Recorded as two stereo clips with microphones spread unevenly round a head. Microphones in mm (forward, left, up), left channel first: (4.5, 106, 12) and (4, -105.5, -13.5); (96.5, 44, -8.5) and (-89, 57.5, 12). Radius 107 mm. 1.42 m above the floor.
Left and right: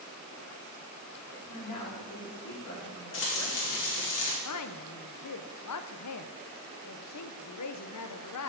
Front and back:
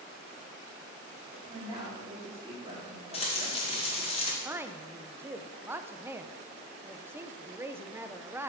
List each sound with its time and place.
1.3 s a woman speaking: 115° left, 4.5 m
3.1 s frying: 55° left, 2.5 m
4.5 s a woman speaking: 100° left, 0.7 m